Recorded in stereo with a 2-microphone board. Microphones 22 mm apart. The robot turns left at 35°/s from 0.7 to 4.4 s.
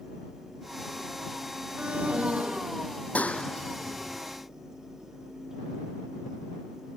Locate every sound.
1.8 s an alarm: 60° right; by 3.0 s 105° right
3.1 s a clap: 75° left (ahead or behind); by 4.2 s 45° left (ahead or behind)